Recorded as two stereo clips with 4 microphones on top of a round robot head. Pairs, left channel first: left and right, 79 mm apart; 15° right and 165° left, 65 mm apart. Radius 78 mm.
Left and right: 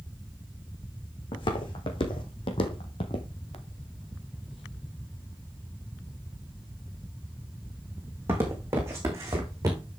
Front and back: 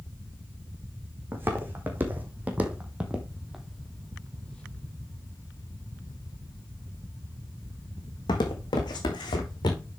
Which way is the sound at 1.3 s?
110° left.